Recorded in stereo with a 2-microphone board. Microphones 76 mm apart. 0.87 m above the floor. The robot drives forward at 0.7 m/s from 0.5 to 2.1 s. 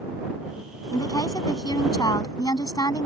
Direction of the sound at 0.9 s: 60° left (ahead or behind).